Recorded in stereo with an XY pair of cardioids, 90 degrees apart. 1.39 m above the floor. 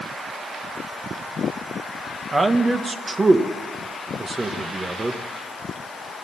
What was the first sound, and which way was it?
A man speaking, 30° right.